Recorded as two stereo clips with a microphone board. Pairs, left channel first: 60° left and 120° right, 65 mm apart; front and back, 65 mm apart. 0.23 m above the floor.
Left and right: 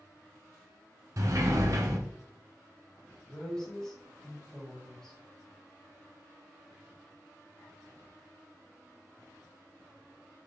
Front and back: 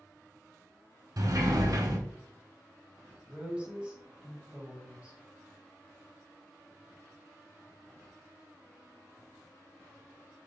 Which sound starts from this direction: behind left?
A woman speaking, at 3.3 s.